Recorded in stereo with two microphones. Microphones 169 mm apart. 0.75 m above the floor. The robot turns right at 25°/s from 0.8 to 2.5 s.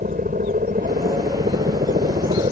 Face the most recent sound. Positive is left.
turn(degrees=-70)